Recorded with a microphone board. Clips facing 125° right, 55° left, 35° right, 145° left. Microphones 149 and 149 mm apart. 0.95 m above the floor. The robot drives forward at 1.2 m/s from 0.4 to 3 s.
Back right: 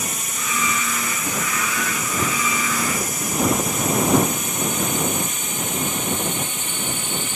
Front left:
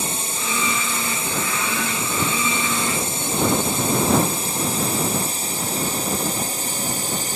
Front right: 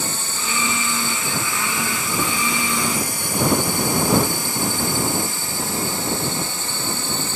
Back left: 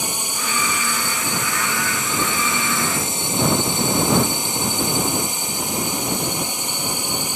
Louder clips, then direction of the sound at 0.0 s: Front left 2 dB, back left 1 dB; 85° left.